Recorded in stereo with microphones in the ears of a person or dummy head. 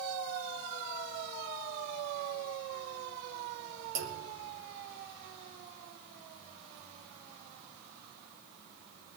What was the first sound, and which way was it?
A clunk, 75° right (ahead or behind).